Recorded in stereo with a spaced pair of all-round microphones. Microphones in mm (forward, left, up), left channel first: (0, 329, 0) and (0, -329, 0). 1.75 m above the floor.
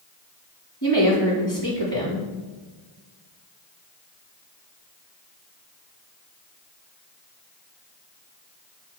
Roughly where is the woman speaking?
Left.